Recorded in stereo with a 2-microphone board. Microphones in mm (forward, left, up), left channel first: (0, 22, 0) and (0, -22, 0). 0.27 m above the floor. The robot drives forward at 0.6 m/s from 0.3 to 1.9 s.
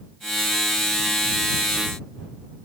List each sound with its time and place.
Only background noise.